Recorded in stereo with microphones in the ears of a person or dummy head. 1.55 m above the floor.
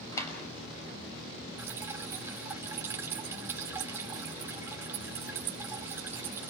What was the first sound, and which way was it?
A clap, 20° left (ahead or behind).